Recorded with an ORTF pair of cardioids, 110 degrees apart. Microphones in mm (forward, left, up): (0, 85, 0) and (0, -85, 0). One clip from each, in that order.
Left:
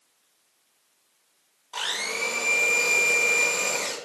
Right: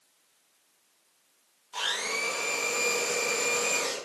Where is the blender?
25° left, 0.8 m.